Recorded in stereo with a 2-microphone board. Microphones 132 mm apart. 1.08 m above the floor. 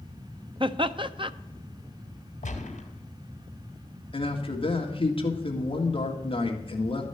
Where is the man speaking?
45° left (ahead or behind), 1.9 m.